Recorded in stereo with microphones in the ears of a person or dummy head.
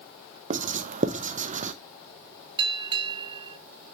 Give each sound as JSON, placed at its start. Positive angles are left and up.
{"t": 0.5, "sound": "writing", "side_deg": -50, "distance_m": 0.8}
{"t": 2.6, "sound": "a bell", "side_deg": -20, "distance_m": 1.0}